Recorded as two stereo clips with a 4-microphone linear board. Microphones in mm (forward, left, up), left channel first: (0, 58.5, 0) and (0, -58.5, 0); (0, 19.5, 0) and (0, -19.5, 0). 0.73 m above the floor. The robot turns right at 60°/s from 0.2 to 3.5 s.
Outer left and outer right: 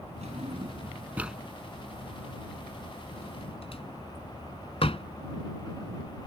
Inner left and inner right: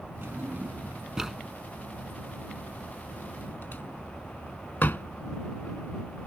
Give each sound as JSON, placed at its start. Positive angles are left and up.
{"t": 0.2, "sound": "a drawer", "side_deg": -70}